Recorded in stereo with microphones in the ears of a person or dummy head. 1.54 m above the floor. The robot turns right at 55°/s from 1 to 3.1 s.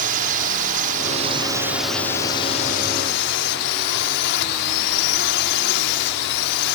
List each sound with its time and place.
0.0 s a drone: 50° right; by 6.8 s 65° left